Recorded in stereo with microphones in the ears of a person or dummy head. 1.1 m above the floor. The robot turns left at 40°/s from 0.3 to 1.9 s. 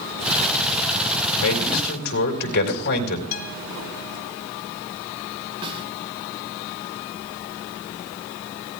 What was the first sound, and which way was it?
A man speaking, 80° left.